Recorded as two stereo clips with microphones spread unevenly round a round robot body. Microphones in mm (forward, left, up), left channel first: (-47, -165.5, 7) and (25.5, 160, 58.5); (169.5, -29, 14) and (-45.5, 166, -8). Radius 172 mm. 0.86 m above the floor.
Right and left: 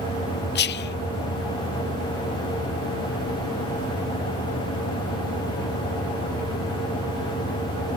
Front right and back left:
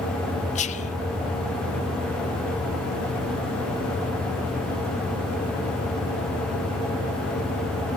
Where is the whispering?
100° right, 0.6 m.